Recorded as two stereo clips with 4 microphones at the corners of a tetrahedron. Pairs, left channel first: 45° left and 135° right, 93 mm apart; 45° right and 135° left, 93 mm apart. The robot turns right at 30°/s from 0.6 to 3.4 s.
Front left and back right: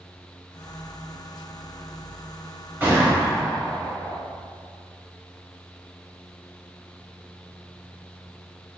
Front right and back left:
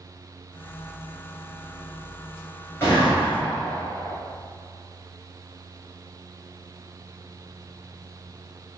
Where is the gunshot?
80° right, 1.4 m; by 4.2 s 65° right, 1.4 m.